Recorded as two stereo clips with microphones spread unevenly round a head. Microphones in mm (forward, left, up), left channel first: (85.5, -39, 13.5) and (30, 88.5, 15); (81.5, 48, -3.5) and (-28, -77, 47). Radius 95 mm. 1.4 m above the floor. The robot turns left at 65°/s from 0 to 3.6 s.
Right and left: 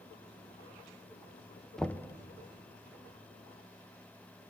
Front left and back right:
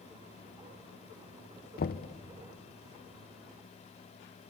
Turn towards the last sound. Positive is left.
turn(degrees=-100)